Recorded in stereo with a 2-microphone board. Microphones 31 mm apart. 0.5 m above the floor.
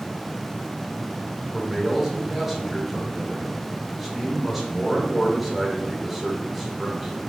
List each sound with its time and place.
1.5 s a man speaking: 10° right (ahead or behind), 1.2 m